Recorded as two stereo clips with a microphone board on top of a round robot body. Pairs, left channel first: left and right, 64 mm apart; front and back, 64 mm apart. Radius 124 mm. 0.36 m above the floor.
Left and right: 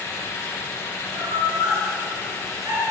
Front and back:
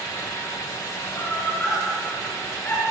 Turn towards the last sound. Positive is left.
turn(degrees=-60)